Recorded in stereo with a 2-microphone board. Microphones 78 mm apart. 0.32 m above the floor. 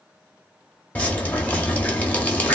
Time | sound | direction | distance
0.9 | dripping | 20° left (ahead or behind) | 1.0 m